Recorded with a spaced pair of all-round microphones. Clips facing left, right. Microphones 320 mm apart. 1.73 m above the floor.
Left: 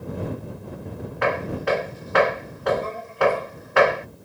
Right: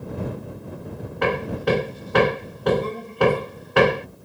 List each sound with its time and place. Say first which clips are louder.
1.2 s hammering: right 2 dB; 45° right (ahead or behind)